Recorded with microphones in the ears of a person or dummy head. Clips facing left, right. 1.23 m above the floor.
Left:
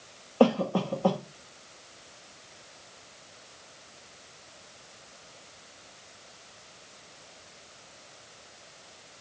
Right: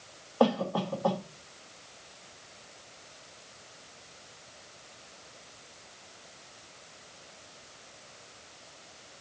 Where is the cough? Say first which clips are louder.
Left 3 dB; 40° left (ahead or behind), 1.2 m.